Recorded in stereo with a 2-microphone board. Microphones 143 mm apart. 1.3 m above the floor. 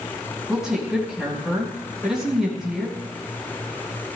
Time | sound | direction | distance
0.5 | a woman speaking | 5° right (ahead or behind) | 4.5 m